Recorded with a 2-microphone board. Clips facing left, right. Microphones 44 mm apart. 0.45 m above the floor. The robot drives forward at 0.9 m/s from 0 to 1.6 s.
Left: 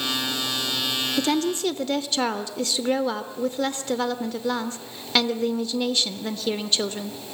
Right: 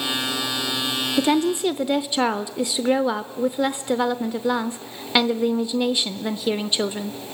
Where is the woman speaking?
20° right (ahead or behind), 0.7 m; by 7.2 s 15° right (ahead or behind), 0.9 m.